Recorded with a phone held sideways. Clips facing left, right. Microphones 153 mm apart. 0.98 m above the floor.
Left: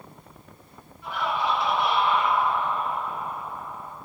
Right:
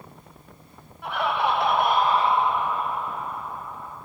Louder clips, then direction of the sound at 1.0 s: Right 3 dB; 70° right (ahead or behind).